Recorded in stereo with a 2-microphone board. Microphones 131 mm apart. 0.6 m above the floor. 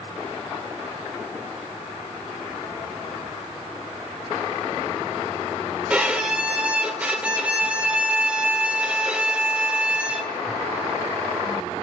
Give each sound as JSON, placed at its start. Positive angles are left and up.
{"t": 5.9, "sound": "a violin", "side_deg": -10, "distance_m": 1.5}